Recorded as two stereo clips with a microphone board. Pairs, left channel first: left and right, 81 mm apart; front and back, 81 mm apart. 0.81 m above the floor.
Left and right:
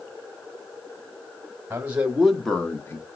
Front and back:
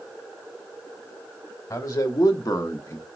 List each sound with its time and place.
1.7 s a man speaking: 35° right, 1.3 m; by 3.0 s 45° left, 1.2 m